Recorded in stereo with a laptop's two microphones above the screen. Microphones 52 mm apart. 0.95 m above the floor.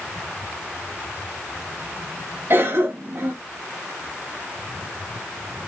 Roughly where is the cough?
Right.